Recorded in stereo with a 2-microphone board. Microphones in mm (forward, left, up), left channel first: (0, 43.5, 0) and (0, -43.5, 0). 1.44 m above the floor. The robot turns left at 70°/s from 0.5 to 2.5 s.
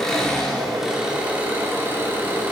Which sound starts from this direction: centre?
An engine running, at 0.0 s.